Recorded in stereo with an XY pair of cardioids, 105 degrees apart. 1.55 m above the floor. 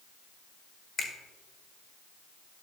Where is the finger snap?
50° left, 1.7 m.